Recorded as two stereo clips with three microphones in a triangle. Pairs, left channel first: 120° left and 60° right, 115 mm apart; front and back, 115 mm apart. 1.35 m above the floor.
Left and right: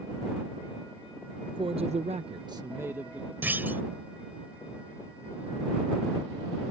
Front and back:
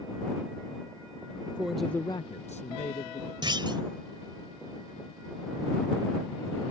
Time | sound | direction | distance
1.4 | a man speaking | 110° right | ?
3.4 | a clunk | 135° right | ?